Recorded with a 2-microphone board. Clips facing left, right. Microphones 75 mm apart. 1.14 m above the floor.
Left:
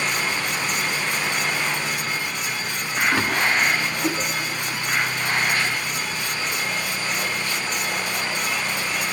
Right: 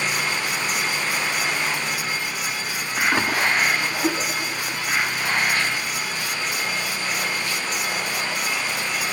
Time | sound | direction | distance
3.1 | a splash | 15° right (ahead or behind) | 1.8 m